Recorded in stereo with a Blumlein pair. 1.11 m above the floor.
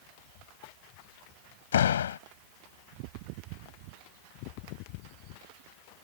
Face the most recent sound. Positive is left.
turn(degrees=65)